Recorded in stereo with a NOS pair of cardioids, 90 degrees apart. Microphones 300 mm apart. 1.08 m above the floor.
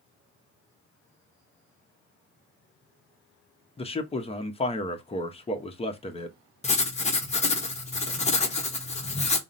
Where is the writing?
25° left, 0.8 m.